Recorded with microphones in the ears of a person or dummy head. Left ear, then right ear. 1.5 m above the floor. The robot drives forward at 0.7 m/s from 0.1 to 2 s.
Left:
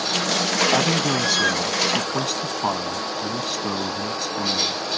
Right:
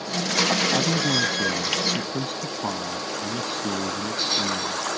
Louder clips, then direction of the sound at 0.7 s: Left 2 dB; 60° left (ahead or behind).